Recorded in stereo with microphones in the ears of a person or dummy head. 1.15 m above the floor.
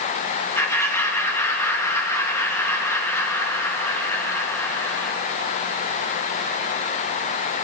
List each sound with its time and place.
0.6 s laughter: 10° left (ahead or behind), 1.3 m